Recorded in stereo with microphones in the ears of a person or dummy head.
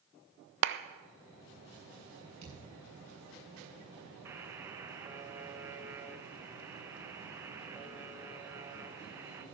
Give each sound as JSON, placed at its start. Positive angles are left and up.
{"t": 0.6, "sound": "a clap", "side_deg": -65, "distance_m": 0.7}
{"t": 2.4, "sound": "a thud", "side_deg": -35, "distance_m": 7.5}
{"t": 4.2, "sound": "a buzzer", "side_deg": -15, "distance_m": 1.0}